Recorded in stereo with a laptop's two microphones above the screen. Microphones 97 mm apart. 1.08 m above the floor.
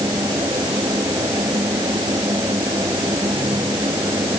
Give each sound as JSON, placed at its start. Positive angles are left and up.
{"t": 0.0, "sound": "a fan", "side_deg": -40}